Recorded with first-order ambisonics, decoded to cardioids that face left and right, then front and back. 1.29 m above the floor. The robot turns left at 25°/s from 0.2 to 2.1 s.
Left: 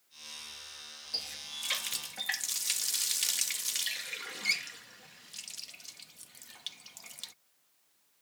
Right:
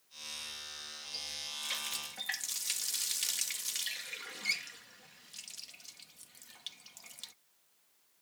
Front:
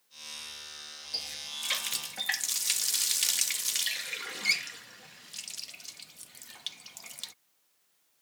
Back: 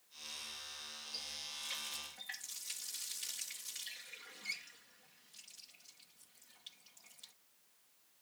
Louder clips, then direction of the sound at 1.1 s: Left 3 dB, front 9 dB; 40° left.